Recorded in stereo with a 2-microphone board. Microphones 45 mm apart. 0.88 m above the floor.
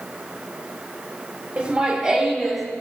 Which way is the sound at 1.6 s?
30° right (ahead or behind).